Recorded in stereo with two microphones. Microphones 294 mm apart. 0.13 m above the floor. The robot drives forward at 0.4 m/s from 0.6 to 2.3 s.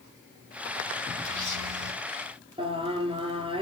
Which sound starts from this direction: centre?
Singing, at 2.6 s.